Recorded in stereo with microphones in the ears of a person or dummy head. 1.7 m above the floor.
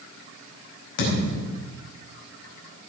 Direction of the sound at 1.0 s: 65° left (ahead or behind).